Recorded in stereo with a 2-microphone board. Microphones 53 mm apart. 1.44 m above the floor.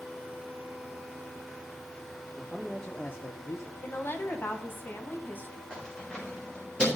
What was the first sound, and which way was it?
A man speaking, 10° right (ahead or behind).